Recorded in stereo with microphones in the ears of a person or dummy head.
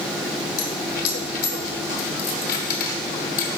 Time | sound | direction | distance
0.6 | a dropped coin | 50° left (ahead or behind) | 1.2 m